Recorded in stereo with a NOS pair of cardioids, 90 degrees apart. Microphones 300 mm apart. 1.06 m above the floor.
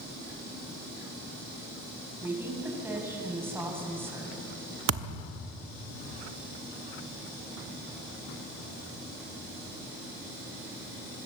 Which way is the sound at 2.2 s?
5° right.